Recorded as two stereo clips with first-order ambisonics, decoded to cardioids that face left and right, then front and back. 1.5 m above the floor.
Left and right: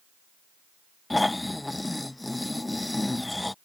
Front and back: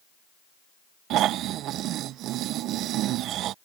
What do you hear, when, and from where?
1.1 s snoring: 170° left